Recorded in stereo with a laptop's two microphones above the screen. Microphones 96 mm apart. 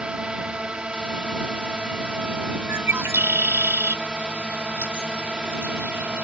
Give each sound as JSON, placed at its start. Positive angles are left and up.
{"t": 0.0, "sound": "a drone", "side_deg": -10}
{"t": 2.7, "sound": "a bird", "side_deg": -25}